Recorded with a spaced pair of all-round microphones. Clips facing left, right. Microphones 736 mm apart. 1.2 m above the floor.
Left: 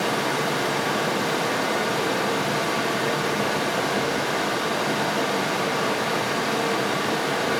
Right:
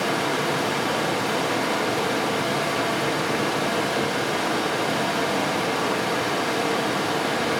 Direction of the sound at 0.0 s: 40° right (ahead or behind).